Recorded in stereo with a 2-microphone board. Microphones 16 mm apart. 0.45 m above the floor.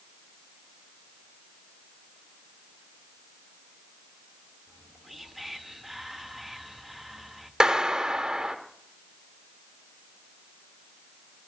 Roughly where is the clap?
Right.